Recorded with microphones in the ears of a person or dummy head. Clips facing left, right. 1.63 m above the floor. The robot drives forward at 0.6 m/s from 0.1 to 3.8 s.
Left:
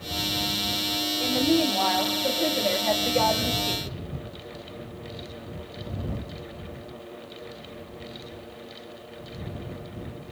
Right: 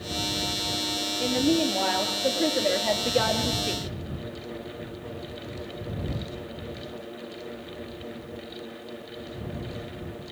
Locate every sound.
1.2 s a woman speaking: 10° right (ahead or behind), 4 m; by 3.9 s 15° right (ahead or behind), 2.5 m